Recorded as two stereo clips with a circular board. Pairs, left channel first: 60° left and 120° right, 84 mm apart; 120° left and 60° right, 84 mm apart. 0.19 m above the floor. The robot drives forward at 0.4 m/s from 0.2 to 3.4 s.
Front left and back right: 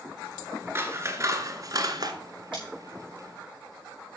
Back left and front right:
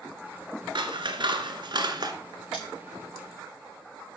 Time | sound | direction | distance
0.8 | scissors | 60° right | 1.2 m
2.5 | scissors | 140° right | 6 m